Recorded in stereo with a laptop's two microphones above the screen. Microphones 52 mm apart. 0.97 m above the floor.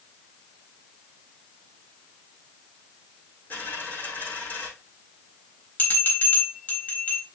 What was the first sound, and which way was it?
A dropped coin, 35° left (ahead or behind).